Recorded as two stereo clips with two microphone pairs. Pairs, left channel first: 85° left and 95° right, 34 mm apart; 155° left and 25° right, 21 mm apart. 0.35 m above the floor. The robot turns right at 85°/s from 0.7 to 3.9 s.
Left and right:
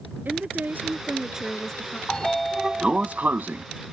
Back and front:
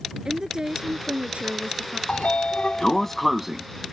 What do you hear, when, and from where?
0.2 s a woman speaking: 80° right; by 2.0 s 30° left
2.1 s a sliding door: 145° left; by 3.6 s 85° right